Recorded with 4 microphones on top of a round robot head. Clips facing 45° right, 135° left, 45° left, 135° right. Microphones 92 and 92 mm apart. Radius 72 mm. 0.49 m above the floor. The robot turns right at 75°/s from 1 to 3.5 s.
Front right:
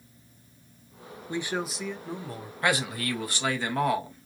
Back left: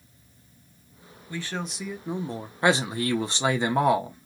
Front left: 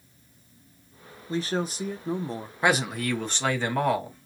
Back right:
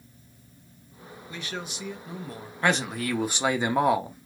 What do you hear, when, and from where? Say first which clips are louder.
1.3 s a man speaking: front right 3 dB, front left 9 dB; 10° left, 0.8 m; by 2.5 s 105° left, 0.8 m
2.6 s a man speaking: back left 4 dB, front left 1 dB; 110° left, 0.8 m; by 4.3 s 175° left, 0.8 m